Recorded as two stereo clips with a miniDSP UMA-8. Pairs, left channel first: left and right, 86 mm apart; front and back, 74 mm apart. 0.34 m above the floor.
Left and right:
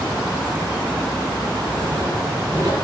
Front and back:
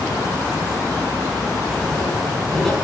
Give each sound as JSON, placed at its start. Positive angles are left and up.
{"t": 1.6, "sound": "writing", "azimuth_deg": -85, "distance_m": 4.0}